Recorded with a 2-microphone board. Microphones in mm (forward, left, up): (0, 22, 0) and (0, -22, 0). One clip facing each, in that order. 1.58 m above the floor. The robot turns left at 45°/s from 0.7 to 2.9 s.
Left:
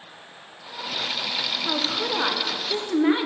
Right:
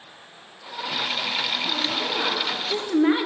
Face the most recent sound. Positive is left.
turn(degrees=-5)